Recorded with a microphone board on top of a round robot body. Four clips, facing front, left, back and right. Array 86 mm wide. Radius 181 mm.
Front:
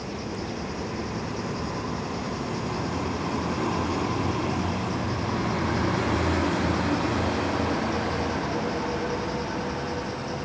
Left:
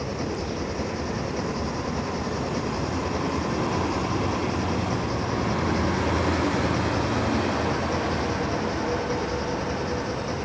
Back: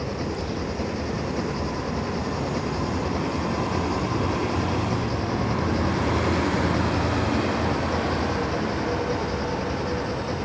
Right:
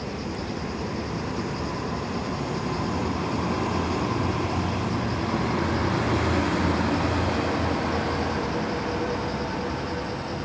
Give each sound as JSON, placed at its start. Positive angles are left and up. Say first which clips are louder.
{"t": 0.0, "sound": "an engine running", "louder": "left 2 dB, back 4 dB", "azimuth_deg": 135}